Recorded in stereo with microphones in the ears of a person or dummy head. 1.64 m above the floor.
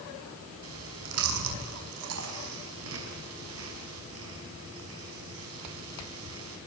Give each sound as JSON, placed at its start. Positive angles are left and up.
{"t": 0.6, "sound": "chewing", "side_deg": -75, "distance_m": 5.0}